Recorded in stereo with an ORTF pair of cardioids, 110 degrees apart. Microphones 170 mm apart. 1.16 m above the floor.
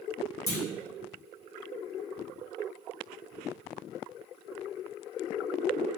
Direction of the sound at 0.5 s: 20° left.